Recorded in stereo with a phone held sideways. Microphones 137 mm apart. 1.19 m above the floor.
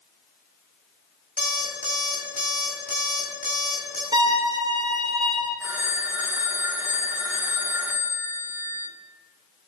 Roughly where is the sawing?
I don't hear sawing.